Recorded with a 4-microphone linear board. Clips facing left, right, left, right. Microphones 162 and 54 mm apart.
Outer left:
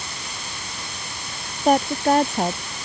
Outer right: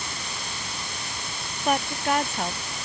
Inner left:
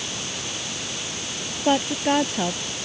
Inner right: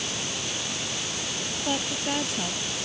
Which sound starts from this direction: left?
A woman speaking, at 1.6 s.